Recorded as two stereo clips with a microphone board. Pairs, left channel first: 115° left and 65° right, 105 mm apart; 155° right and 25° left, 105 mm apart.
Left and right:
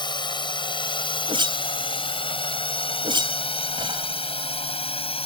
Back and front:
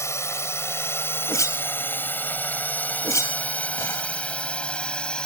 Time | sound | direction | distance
0.0 | a drone | 145° left | ?
1.3 | a whoosh | 100° right | ?